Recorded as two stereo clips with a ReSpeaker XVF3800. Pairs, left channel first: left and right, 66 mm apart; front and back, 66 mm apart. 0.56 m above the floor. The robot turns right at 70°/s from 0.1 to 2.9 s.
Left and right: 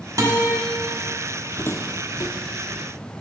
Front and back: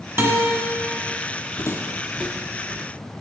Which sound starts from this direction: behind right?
A guitar, at 0.2 s.